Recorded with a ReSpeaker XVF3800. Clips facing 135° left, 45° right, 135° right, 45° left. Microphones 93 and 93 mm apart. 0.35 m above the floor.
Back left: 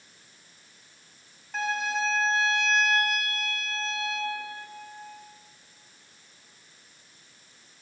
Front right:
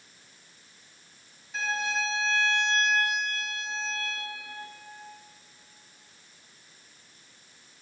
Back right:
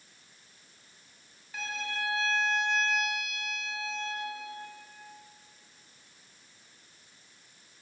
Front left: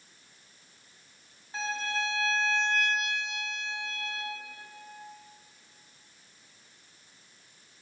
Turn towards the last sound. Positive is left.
turn(degrees=105)